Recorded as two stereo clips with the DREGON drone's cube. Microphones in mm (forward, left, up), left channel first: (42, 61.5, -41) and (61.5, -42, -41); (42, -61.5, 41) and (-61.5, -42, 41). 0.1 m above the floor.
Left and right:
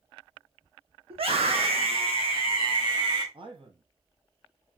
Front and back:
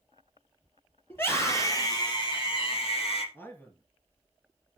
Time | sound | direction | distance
1.1 | a scream | 80° right | 3.5 m
3.3 | a man speaking | 80° right | 1.9 m